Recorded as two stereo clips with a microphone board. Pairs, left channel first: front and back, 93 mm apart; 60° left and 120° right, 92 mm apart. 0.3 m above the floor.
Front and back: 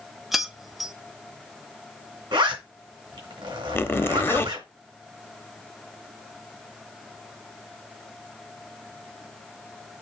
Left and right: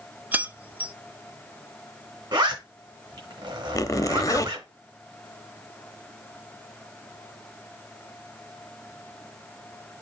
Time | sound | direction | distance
0.3 | keys jangling | 100° right | 0.6 m
2.3 | a zipper | 150° right | 4 m
3.8 | a zipper | 50° left | 0.7 m